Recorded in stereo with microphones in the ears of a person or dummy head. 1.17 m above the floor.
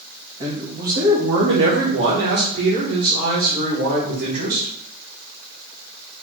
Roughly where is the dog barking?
No dog barking in this recording.